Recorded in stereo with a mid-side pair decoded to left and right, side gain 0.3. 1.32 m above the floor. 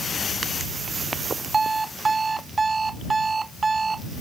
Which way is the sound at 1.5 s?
45° right.